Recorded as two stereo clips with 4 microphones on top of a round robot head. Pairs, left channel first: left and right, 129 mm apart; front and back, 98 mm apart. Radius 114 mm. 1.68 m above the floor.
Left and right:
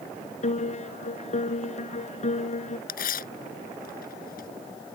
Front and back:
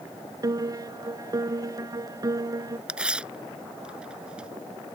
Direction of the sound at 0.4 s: 125° left.